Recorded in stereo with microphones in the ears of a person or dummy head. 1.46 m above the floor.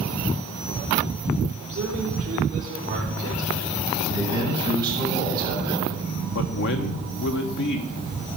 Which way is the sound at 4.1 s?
20° right (ahead or behind).